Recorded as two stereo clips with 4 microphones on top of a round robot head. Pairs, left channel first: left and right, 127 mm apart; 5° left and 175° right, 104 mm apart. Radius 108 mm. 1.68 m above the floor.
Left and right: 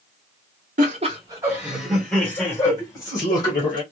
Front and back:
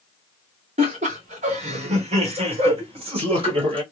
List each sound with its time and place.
0.8 s laughter: 130° right, 0.8 m; by 3.8 s 155° left, 2 m